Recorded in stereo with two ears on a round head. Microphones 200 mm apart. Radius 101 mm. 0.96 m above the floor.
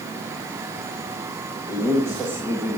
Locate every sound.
1.7 s a man speaking: 15° right (ahead or behind), 1.8 m